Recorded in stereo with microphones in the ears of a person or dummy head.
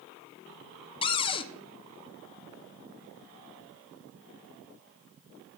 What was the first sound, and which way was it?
A cupboard door, 25° left (ahead or behind).